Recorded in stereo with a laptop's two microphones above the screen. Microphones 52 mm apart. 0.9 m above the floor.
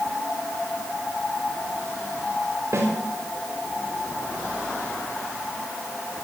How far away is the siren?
I don't hear a siren.